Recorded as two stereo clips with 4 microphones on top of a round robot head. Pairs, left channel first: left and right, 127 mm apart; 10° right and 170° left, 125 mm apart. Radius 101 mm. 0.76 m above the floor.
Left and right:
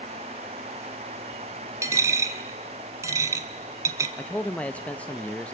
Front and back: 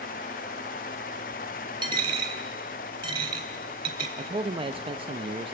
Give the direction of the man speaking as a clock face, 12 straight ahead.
6 o'clock.